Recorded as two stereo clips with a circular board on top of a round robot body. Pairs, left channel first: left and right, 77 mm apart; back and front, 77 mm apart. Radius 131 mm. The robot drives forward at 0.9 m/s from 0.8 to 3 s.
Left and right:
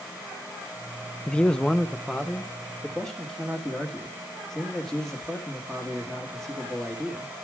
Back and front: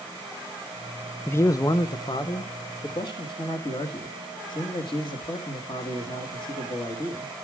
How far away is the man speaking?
About 0.5 m.